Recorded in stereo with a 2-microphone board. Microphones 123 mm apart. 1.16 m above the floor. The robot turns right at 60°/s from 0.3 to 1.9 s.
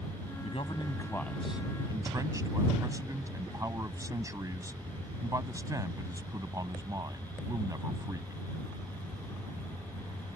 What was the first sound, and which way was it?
A man speaking, 120° left.